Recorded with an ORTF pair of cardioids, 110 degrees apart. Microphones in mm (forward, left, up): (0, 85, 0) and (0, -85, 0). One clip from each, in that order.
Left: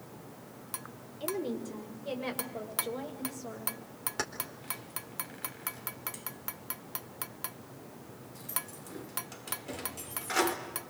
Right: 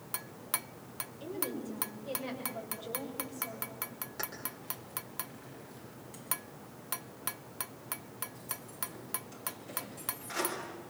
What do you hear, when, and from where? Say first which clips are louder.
1.2 s a woman speaking: left 5 dB; 40° left, 7 m; by 3.9 s 35° left, 8.5 m
4.2 s keys jangling: left 4 dB; 45° left, 4 m